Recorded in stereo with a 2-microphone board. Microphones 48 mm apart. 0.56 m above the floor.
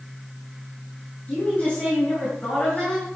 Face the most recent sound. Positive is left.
turn(degrees=30)  # may be behind; listen again after turning